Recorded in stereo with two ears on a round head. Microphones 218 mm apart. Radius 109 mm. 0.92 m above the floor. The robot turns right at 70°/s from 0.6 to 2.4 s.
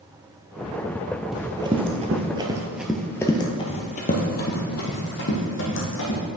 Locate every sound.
1.3 s running footsteps: centre (ahead or behind), 1.3 m; by 6.2 s 55° left (ahead or behind), 2.5 m